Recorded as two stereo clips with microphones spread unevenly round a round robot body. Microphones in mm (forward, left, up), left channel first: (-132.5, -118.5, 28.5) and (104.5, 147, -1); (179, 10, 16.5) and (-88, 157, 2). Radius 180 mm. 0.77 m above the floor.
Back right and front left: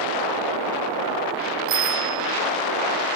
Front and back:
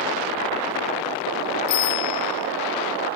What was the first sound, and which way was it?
A bicycle bell, 5° right.